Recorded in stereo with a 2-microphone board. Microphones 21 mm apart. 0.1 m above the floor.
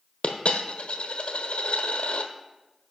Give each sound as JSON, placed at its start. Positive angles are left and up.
{"t": 0.2, "sound": "a dropped coin", "side_deg": 65, "distance_m": 0.9}